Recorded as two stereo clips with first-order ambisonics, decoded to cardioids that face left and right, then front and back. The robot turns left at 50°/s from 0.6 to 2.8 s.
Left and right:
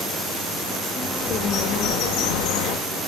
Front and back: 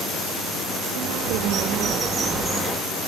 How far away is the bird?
About 3 m.